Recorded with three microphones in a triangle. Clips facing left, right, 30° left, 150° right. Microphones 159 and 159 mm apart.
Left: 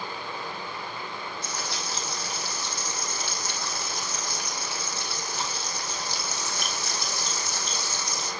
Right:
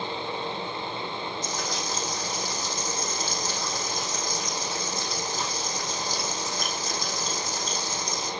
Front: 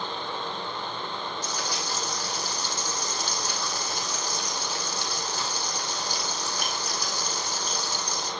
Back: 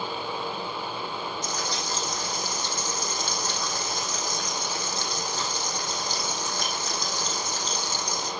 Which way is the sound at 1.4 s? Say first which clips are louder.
Right 3 dB, back 1 dB; 105° left.